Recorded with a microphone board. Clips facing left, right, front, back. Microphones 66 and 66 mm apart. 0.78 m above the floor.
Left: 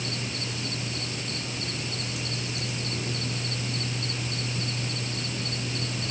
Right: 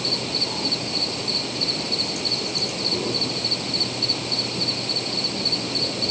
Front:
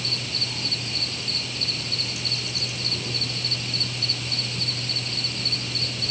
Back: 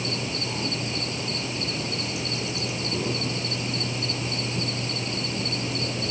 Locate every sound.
0.0 s an insect: 115° right